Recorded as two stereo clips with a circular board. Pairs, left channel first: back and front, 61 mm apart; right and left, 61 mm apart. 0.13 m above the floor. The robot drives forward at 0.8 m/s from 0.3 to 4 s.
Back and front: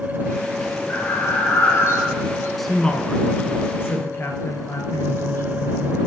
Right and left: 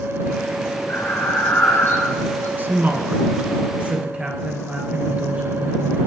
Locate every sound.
0.9 s breathing: 130° right, 5 m; by 2.5 s 140° right, 5.5 m
2.6 s a woman speaking: 95° left, 1.2 m; by 6.0 s 150° left, 1.7 m